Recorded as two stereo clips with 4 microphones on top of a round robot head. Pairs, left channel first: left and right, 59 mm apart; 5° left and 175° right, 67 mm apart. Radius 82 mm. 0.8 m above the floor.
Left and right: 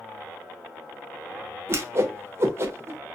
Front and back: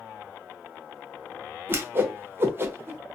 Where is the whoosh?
125° right, 0.7 m.